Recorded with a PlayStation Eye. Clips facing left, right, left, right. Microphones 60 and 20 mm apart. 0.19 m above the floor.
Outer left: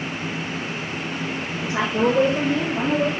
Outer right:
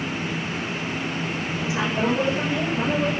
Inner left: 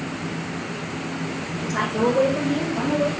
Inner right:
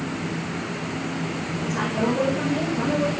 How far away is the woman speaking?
About 2.5 m.